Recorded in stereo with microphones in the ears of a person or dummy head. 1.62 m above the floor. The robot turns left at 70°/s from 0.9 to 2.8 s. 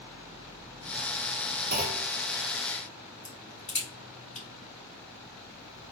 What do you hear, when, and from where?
1.7 s a clunk: 40° right (ahead or behind), 0.7 m; by 2.1 s 15° right (ahead or behind), 0.7 m
3.2 s a crack: 25° left (ahead or behind), 2 m